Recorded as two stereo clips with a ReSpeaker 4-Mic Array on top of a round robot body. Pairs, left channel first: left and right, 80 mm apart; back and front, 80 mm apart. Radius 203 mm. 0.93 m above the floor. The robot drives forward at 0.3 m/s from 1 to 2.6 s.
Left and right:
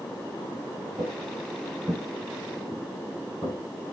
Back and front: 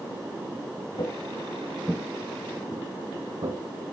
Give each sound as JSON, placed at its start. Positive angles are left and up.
{"t": 1.0, "sound": "footsteps", "azimuth_deg": -140, "distance_m": 1.2}